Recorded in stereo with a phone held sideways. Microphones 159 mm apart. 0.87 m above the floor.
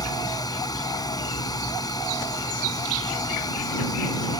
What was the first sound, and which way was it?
A fan, 25° left (ahead or behind).